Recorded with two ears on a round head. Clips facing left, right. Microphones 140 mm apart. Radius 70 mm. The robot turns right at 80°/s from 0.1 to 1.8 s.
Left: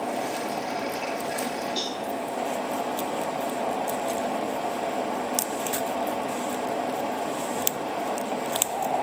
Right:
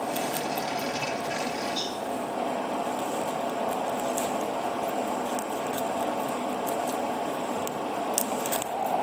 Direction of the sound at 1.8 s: 60° left (ahead or behind).